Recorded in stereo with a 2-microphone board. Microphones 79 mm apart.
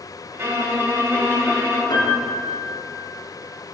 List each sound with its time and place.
0.3 s a violin: 30° right (ahead or behind), 2.5 m
1.9 s a piano: 80° left, 2.5 m